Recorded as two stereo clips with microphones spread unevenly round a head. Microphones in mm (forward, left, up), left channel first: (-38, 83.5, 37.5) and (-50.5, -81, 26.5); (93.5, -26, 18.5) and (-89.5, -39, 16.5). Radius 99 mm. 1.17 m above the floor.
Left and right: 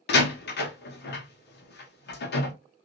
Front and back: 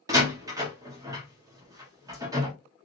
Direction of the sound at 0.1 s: 110° left.